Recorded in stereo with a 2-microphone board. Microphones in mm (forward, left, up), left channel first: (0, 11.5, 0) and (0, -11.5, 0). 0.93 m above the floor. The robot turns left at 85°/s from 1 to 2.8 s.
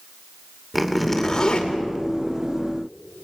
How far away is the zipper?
About 2.5 m.